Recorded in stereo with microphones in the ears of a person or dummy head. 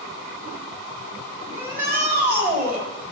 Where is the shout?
10° right (ahead or behind), 4 m.